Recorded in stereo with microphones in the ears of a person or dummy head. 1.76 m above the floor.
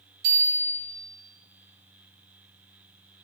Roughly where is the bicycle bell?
Right.